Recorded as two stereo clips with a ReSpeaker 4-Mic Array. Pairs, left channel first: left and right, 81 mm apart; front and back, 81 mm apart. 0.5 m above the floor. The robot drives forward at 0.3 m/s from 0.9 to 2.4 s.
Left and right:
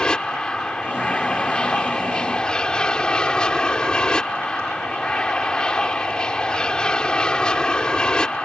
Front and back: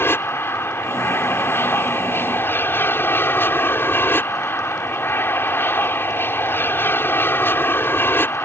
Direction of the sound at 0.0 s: 20° left.